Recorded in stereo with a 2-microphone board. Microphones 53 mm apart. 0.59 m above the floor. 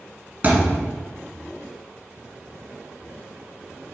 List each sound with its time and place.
0.4 s a thud: 35° right (ahead or behind), 2.5 m